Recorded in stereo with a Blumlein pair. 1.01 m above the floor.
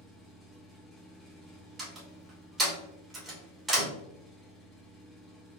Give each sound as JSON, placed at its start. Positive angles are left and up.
{"t": 0.0, "sound": "an engine running", "azimuth_deg": 0, "distance_m": 1.5}
{"t": 1.8, "sound": "a door slam", "azimuth_deg": -15, "distance_m": 2.5}